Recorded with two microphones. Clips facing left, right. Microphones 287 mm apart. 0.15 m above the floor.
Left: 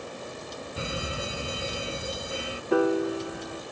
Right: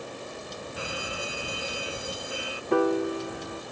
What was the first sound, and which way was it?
An alarm, 25° left (ahead or behind).